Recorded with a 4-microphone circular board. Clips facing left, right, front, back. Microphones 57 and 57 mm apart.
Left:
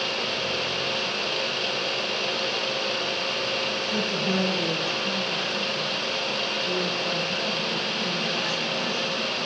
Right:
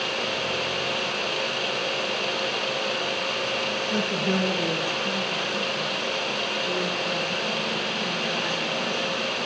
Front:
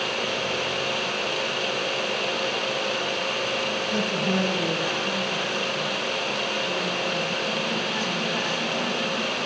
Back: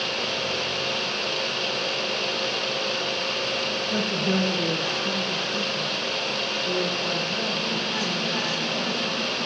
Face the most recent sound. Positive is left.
turn(degrees=175)